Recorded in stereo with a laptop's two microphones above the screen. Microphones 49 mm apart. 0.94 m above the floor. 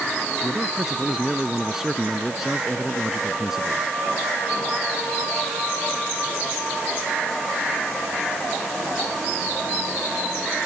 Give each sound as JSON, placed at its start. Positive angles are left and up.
{"t": 0.4, "sound": "a man speaking", "side_deg": -10}